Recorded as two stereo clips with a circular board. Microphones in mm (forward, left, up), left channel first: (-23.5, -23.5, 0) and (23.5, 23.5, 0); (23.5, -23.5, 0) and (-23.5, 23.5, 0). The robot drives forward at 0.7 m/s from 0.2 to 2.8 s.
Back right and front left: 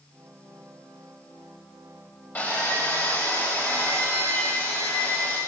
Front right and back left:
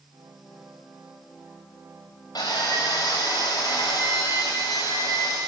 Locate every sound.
2.4 s sawing: 75° right, 7.5 m